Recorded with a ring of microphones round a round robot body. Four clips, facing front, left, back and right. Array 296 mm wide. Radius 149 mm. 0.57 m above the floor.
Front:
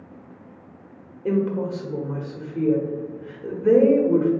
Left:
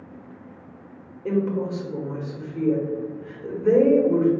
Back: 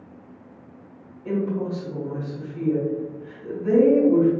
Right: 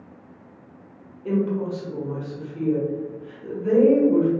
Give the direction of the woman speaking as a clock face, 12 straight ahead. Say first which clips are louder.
Even, front 2 dB; 11 o'clock.